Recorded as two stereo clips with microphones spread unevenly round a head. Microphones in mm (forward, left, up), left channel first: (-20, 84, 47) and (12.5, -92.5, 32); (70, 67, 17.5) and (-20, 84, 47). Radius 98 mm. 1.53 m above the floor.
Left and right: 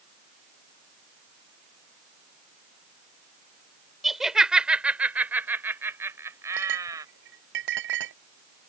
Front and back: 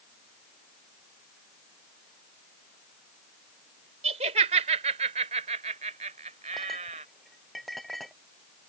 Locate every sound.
4.0 s laughter: 170° right; by 7.0 s 155° right
6.5 s a clink: 100° right